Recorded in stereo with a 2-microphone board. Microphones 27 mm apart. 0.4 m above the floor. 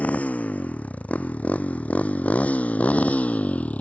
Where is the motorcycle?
65° left (ahead or behind); by 3.8 s 60° left (ahead or behind).